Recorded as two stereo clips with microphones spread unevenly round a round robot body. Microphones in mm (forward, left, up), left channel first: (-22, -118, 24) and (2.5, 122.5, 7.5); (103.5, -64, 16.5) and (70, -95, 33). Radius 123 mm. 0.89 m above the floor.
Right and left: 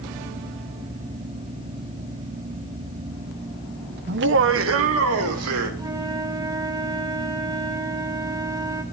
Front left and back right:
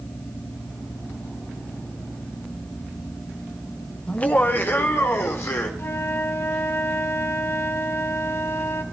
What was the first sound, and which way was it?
Laughter, 60° left.